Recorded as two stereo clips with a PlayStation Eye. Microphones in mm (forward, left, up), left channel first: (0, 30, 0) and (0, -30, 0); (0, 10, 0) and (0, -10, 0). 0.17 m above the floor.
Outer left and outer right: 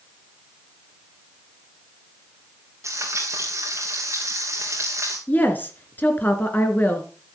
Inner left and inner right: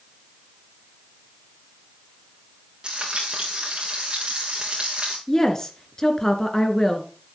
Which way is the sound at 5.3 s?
30° left (ahead or behind).